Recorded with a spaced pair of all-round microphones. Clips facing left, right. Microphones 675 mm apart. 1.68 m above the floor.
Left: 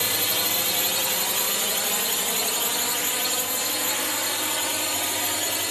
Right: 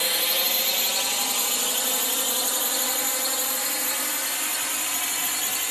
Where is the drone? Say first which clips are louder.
Even; 65° left (ahead or behind); by 5.7 s 80° left.